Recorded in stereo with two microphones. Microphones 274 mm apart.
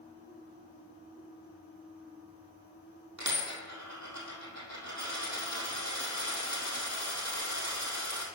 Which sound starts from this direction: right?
A dropped coin, at 3.2 s.